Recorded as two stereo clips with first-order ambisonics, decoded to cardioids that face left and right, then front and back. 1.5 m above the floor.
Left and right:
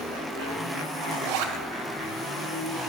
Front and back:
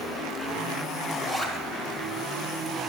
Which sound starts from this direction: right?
A zipper, at 1.1 s.